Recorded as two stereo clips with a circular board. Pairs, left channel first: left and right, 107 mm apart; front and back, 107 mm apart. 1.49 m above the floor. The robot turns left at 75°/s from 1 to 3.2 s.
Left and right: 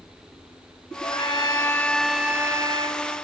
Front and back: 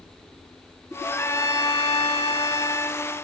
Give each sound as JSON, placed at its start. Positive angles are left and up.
{"t": 1.0, "sound": "a trumpet", "azimuth_deg": 80}